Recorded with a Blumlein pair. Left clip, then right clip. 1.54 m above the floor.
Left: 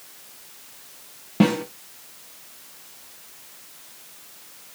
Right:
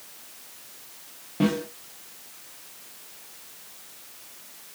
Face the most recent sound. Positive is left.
turn(degrees=25)